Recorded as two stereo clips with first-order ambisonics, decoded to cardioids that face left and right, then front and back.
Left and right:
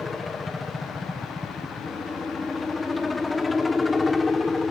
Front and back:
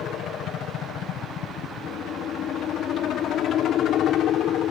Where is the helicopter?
15° left.